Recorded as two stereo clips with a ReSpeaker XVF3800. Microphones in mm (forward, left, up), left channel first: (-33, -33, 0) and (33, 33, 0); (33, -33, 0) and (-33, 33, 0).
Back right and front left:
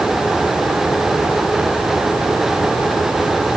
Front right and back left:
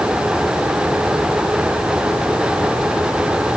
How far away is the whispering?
No whispering in this recording.